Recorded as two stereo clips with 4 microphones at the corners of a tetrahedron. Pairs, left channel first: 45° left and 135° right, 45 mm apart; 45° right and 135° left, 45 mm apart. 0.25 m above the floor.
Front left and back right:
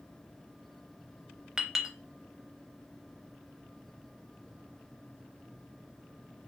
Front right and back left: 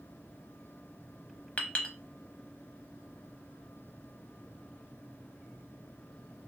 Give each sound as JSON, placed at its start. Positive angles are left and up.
{"t": 1.6, "sound": "a clink", "azimuth_deg": -70, "distance_m": 0.6}